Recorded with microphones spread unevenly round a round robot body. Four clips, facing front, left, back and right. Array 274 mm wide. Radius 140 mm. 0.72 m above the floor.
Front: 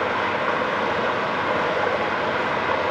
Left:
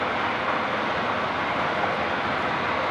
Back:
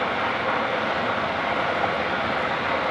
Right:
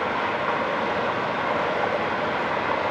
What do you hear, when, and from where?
0.0 s running water: 35° right, 5 m